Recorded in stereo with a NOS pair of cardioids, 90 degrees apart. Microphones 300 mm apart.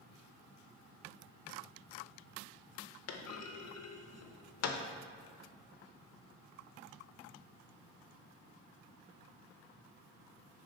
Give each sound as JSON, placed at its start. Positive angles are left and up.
{"t": 3.1, "sound": "a clunk", "azimuth_deg": 55, "distance_m": 0.7}